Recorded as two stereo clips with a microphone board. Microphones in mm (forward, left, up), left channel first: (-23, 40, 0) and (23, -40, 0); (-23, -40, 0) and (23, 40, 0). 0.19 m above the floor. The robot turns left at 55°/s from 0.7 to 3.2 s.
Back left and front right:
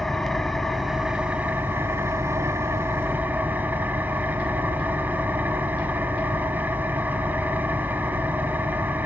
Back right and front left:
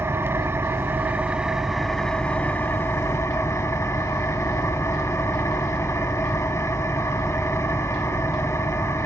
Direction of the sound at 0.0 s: 35° left.